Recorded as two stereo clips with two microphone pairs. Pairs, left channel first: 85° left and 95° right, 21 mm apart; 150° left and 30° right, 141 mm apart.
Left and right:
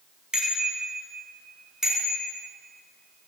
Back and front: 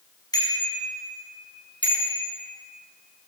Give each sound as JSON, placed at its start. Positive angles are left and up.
{"t": 0.3, "sound": "a bicycle bell", "azimuth_deg": -150, "distance_m": 6.0}